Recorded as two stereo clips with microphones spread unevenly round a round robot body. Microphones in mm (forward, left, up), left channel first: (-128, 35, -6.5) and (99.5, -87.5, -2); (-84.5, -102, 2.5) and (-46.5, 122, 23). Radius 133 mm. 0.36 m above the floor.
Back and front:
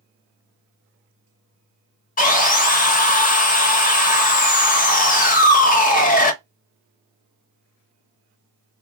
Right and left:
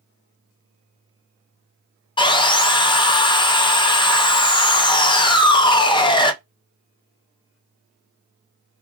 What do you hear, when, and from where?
2.2 s sawing: 160° right, 0.7 m